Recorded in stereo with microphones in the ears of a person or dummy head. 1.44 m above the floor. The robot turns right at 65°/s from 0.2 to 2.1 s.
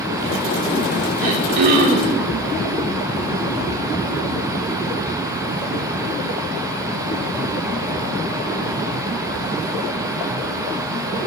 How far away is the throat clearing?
About 1.7 m.